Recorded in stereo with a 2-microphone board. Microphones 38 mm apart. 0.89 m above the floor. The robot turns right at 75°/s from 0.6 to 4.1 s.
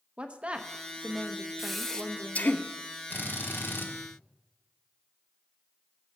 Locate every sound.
0.2 s a woman speaking: 105° right, 0.8 m; by 2.6 s 45° left, 0.8 m
1.6 s breathing: 10° right, 0.7 m; by 2.6 s 70° left, 0.7 m
3.1 s a drill: 55° left, 1.2 m; by 3.9 s 115° left, 1.2 m